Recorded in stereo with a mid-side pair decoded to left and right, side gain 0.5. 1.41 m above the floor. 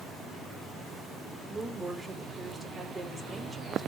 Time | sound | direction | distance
1.5 | a woman speaking | 20° right | 4.5 m